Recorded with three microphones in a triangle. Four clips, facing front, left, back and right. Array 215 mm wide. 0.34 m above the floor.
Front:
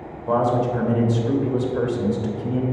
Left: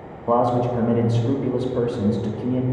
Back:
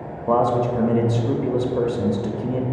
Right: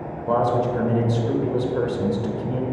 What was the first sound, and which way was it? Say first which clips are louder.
A man speaking: left 1 dB, back 1 dB; 140° left.